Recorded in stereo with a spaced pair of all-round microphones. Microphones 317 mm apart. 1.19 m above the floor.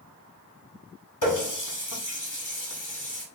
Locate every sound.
1.2 s a running tap: 70° left (ahead or behind), 1.5 m